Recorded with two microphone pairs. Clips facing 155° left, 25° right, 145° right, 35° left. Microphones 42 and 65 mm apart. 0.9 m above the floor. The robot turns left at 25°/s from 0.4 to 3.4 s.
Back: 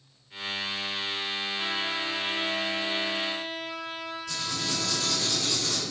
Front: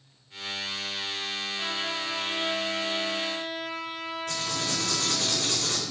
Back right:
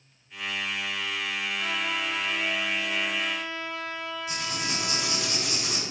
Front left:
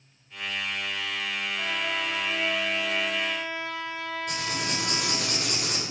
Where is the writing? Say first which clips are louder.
Front 1 dB, front left 1 dB; 10° left, 3 m.